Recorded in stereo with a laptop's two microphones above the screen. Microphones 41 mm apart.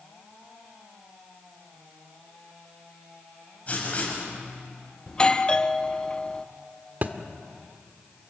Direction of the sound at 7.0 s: 45° right (ahead or behind).